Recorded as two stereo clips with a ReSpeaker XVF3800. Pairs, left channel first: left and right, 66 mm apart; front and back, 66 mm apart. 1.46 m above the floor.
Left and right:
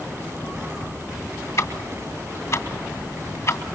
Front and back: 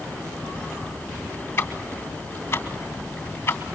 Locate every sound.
1.6 s ticking: 55° left, 2.5 m